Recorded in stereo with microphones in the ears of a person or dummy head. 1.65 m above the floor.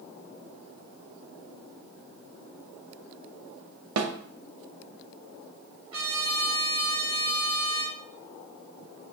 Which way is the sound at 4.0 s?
80° right.